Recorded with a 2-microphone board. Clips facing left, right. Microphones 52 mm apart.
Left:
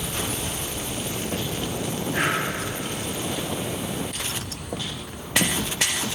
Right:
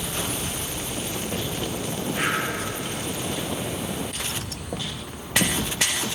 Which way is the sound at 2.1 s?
75° left (ahead or behind).